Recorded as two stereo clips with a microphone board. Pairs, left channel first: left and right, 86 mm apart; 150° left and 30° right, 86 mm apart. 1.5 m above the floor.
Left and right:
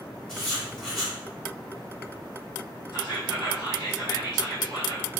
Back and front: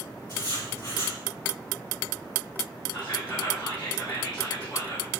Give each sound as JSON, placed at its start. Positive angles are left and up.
{"t": 0.3, "sound": "writing", "azimuth_deg": 175, "distance_m": 1.8}
{"t": 2.9, "sound": "whispering", "azimuth_deg": 130, "distance_m": 1.8}